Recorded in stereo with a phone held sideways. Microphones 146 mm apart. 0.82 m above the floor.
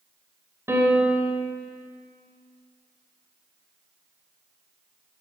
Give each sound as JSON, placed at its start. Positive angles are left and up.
{"t": 0.7, "sound": "a piano", "side_deg": -15, "distance_m": 3.5}